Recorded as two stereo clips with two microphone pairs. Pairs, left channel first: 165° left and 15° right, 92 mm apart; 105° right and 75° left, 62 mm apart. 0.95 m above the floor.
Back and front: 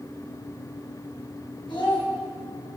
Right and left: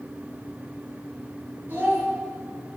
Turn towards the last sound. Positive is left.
turn(degrees=135)